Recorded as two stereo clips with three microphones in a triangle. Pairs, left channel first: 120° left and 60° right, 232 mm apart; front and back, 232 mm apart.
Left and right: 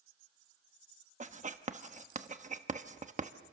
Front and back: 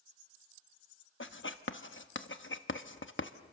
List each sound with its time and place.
1.2 s writing: 5° right, 1.0 m